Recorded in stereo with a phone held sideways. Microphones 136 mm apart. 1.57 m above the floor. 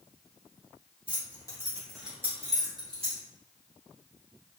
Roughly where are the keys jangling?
Left.